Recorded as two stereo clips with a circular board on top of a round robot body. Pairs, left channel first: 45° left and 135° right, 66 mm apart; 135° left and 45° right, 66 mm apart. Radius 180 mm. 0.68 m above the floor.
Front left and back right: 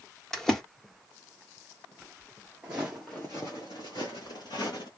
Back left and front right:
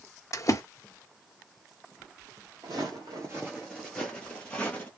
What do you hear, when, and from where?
0.3 s a splash: 130° left, 1.4 m
2.6 s footsteps: 70° right, 0.7 m; by 4.9 s 65° left, 1.1 m